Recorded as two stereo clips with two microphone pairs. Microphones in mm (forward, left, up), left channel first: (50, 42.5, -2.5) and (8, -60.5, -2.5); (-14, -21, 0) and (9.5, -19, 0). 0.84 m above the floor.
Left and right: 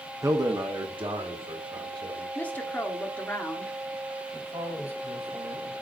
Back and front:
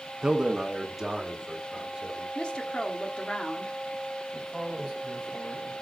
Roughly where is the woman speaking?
Behind left.